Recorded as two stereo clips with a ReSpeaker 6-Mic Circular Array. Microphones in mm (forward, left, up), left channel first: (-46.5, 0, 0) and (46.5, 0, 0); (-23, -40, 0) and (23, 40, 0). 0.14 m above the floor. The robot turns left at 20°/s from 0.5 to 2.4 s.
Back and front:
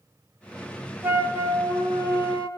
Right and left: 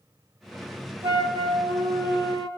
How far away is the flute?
About 2.5 m.